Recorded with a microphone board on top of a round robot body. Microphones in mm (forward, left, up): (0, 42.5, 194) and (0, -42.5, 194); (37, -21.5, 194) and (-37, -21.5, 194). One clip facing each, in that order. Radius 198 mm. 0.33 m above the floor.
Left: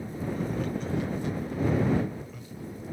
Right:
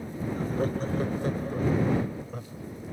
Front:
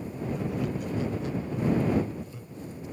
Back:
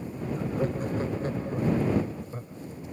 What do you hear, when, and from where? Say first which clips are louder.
0.4 s laughter: right 4 dB, back 3 dB; 135° right